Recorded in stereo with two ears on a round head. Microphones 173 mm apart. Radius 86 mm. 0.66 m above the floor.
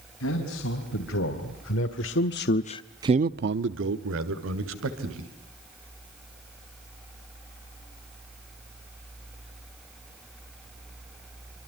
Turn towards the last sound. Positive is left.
turn(degrees=-80)